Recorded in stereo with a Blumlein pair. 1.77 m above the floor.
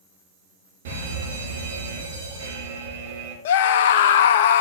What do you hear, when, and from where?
0.8 s a fire alarm: 60° right, 4.5 m
3.5 s a scream: 55° left, 0.9 m